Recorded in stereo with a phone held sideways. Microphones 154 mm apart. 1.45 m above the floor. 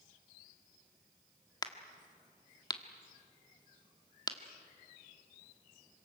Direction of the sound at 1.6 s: 25° left (ahead or behind).